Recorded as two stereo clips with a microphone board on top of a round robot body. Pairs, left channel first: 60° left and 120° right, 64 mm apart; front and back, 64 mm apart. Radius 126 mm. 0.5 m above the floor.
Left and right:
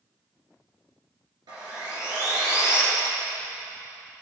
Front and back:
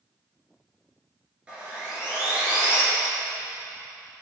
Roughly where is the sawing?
Right.